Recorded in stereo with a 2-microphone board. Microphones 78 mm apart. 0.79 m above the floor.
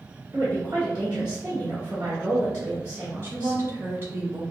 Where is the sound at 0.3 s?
35° right (ahead or behind), 1.6 m.